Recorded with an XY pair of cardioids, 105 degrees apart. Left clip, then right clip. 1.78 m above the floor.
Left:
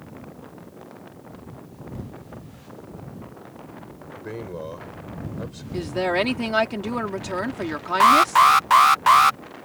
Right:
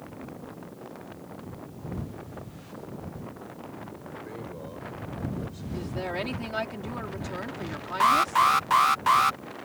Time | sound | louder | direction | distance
4.1 | a man speaking | left 7 dB | 55° left | ?
5.7 | a woman speaking | left 10 dB | 65° left | ?
8.0 | an alarm | left 7 dB | 45° left | ?